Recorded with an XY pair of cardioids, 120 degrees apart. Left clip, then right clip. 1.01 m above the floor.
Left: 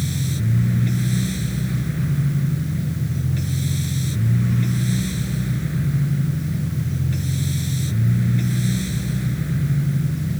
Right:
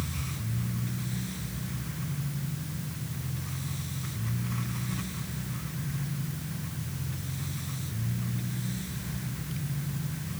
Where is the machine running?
65° left.